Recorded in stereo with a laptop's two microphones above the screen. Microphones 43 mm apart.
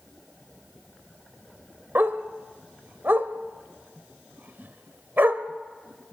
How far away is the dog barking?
About 1.0 m.